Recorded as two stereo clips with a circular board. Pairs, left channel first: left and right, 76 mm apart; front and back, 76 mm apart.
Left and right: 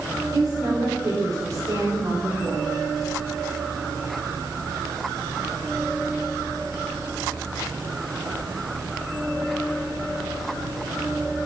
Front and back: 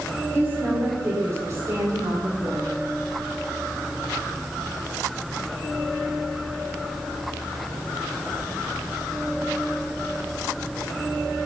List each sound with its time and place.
0.3 s a woman speaking: 120° right, 6 m; by 2.7 s 145° right, 6 m